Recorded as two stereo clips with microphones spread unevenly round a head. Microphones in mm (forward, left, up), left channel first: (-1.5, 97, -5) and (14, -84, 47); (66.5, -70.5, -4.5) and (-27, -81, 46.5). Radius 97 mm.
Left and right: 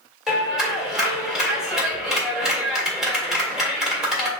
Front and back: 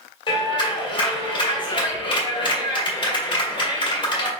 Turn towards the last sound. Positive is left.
turn(degrees=5)